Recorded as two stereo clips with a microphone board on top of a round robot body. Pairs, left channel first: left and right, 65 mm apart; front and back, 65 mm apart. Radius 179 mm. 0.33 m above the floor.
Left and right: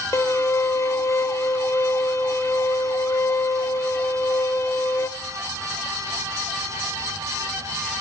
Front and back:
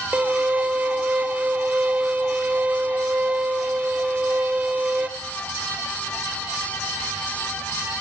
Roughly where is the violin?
Behind left.